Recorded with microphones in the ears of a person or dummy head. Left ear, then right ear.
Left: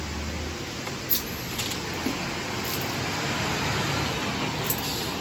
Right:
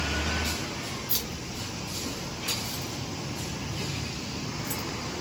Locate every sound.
1.1 s keys jangling: 5° right (ahead or behind), 1.3 m; by 4.9 s 85° left, 1.3 m